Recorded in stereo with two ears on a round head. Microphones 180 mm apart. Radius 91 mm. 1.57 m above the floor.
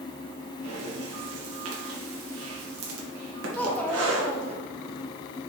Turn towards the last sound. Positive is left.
turn(degrees=10)  # may be behind; listen again after turning